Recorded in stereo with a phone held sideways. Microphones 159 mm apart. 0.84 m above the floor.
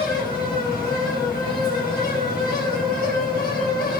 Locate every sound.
0.0 s a fan: 80° left, 5 m